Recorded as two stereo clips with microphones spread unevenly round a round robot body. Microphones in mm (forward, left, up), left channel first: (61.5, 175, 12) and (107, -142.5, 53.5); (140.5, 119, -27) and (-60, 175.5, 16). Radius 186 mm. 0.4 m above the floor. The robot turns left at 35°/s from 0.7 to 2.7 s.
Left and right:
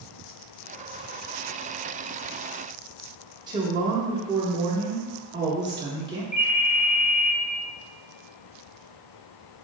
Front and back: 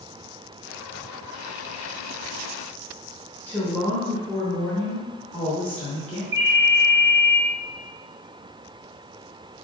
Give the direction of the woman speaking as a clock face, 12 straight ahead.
12 o'clock.